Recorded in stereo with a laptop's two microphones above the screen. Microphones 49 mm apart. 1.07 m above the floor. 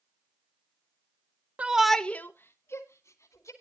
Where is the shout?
25° right (ahead or behind), 0.9 m; by 3.5 s 70° left (ahead or behind), 2.5 m.